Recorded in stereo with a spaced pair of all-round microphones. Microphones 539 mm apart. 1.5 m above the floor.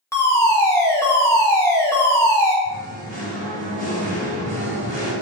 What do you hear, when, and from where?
0.1 s a fire alarm: 5° left (ahead or behind), 1.5 m
2.6 s singing: 55° right (ahead or behind), 2.5 m